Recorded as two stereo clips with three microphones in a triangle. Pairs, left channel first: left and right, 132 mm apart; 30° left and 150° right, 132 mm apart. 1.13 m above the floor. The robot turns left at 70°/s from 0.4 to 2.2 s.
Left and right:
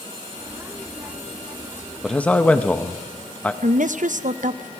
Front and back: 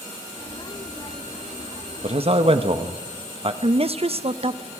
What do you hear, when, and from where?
2.0 s a man speaking: straight behind, 1.3 m; by 3.5 s 170° left, 1.3 m
3.6 s a woman speaking: 105° right, 0.9 m